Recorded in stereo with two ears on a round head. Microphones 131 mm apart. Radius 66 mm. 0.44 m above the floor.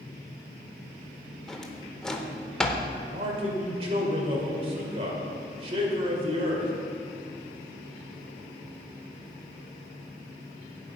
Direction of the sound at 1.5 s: 5° left (ahead or behind).